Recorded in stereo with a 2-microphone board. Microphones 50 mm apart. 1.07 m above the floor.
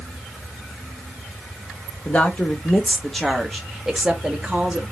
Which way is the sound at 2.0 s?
30° left (ahead or behind).